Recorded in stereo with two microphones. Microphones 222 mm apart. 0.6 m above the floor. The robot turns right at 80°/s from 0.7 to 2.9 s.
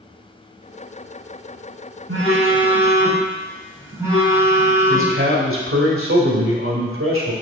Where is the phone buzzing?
75° right, 2.5 m; by 5.2 s 10° right, 2.5 m.